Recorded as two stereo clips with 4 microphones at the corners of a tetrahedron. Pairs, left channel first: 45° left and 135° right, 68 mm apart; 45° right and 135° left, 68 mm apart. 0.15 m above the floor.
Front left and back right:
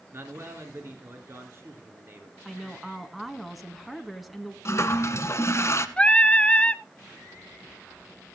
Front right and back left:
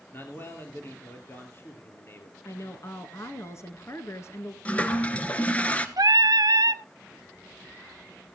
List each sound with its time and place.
0.1 s a man speaking: 90° right, 3 m
2.5 s a woman speaking: 45° right, 1.8 m
4.7 s a toilet flushing: 20° left, 1.1 m
6.0 s singing: 120° left, 0.5 m